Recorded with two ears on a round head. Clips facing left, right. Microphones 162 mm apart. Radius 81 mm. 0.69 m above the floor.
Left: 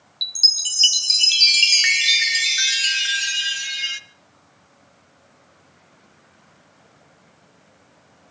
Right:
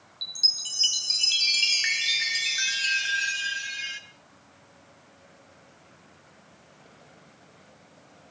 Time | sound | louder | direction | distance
0.2 | a chime | left 3 dB | 65° left (ahead or behind) | 0.8 m